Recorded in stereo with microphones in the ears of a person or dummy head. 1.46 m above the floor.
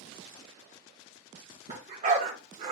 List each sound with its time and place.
1.7 s a dog barking: 45° right (ahead or behind), 4 m; by 2.7 s 35° right (ahead or behind), 4.5 m